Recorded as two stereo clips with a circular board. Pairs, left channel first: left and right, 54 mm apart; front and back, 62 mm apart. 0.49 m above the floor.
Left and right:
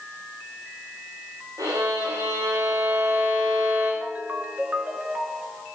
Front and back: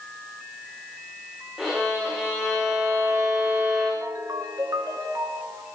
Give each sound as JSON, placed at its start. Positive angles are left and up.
{"t": 1.6, "sound": "a violin", "azimuth_deg": -95, "distance_m": 9.5}
{"t": 4.0, "sound": "a ringtone", "azimuth_deg": -150, "distance_m": 2.5}